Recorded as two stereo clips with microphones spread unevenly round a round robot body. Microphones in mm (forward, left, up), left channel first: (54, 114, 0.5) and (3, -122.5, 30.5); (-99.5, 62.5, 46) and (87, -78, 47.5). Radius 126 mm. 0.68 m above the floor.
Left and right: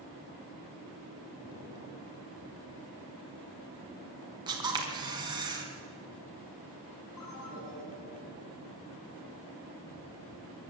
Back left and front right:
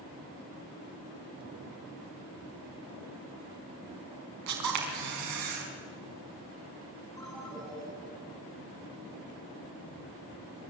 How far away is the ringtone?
About 6 m.